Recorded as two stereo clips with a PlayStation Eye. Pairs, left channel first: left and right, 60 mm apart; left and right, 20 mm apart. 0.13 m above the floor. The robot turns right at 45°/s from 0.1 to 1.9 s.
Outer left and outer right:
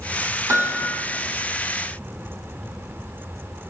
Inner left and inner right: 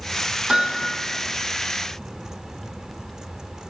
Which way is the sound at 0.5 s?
55° right (ahead or behind).